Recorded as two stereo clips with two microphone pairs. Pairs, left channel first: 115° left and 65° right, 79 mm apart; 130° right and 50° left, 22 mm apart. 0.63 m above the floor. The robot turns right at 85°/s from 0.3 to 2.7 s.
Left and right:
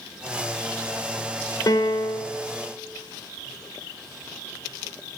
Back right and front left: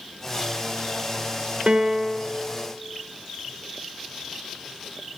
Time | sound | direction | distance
1.7 | a piano | 85° left | 0.6 m